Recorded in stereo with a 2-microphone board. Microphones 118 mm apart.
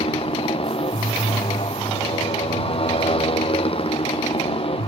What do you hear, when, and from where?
0.0 s a motorcycle: 50° left (ahead or behind)